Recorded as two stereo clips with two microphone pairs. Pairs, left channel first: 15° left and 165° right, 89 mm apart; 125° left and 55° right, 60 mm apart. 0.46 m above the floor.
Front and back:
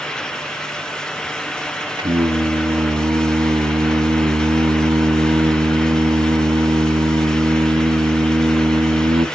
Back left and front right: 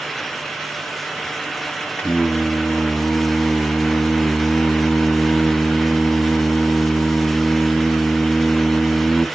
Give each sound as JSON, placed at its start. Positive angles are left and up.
{"t": 2.0, "sound": "singing", "azimuth_deg": -170, "distance_m": 0.6}